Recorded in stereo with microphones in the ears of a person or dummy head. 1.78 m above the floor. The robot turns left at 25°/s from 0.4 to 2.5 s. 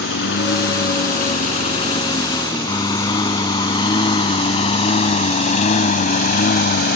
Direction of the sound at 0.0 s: 65° left (ahead or behind).